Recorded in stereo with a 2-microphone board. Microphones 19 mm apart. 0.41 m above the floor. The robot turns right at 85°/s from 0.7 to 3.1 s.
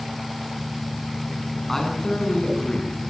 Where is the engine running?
25° right, 1.1 m; by 3.1 s straight behind, 1.1 m.